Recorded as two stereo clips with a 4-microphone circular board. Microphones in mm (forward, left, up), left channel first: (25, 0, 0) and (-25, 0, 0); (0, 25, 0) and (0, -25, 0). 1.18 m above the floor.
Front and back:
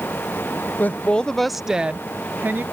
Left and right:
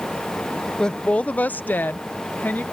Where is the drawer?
No drawer in this recording.